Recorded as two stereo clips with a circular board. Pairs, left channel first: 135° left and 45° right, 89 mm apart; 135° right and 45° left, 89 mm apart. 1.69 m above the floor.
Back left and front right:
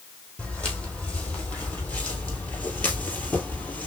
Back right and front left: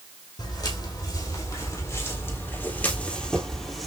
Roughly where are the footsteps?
Behind right.